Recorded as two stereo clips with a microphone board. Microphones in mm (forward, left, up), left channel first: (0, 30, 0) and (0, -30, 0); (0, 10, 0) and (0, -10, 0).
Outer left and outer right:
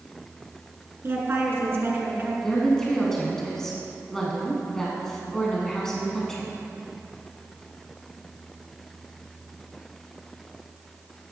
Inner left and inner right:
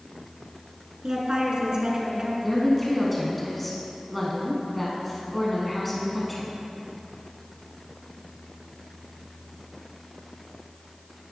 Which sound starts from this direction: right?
A woman speaking, at 1.0 s.